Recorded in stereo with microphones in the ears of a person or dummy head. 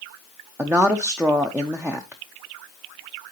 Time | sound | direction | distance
0.6 | a woman speaking | 10° right (ahead or behind) | 0.5 m